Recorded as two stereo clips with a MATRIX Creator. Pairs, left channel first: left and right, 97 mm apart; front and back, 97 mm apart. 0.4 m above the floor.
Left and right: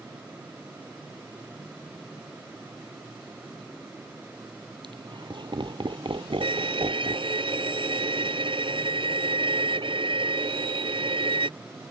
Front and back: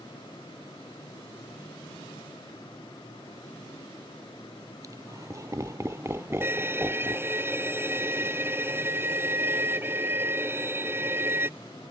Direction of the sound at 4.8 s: 125° right.